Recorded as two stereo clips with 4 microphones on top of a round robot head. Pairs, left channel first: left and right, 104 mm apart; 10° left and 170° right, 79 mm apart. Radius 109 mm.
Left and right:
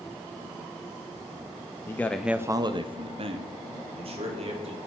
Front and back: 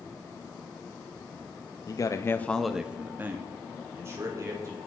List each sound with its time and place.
1.9 s a man speaking: 30° left, 0.8 m; by 4.8 s 115° right, 2.5 m